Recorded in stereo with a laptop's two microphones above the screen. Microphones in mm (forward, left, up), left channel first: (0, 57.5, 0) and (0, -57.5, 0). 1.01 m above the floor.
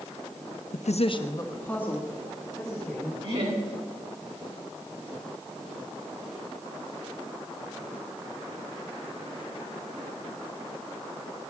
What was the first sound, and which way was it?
A woman speaking, 75° left (ahead or behind).